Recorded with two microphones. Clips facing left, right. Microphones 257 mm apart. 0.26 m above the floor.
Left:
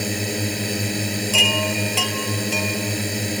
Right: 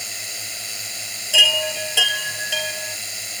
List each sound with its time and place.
0.0 s a drone: 60° left (ahead or behind)
1.3 s a chime: 10° right (ahead or behind)